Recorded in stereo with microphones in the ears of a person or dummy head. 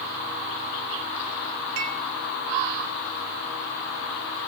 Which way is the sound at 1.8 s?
80° right.